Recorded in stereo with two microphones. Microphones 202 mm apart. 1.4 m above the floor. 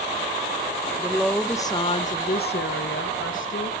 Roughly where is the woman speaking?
Centre.